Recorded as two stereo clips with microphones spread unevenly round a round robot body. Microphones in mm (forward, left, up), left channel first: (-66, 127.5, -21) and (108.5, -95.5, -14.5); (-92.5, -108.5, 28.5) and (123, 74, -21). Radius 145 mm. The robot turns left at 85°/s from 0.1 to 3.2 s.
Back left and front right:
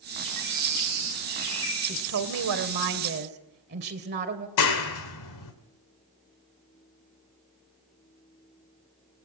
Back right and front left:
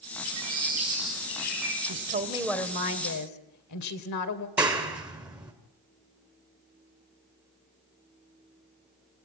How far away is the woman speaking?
About 2.5 m.